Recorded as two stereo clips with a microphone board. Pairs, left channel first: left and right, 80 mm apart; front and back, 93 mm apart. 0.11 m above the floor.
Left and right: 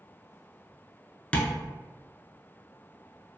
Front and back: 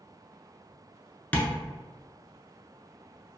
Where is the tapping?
45° left, 0.6 m.